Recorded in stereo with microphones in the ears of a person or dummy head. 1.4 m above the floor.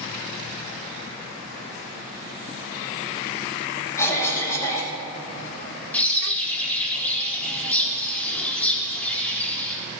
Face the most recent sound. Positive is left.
turn(degrees=10)  # may be behind; listen again after turning